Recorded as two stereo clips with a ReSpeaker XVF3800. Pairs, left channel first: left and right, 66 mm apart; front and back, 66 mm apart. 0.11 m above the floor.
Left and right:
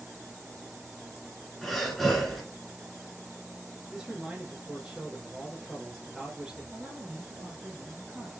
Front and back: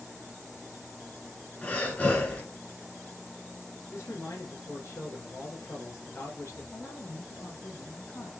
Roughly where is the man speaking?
Ahead.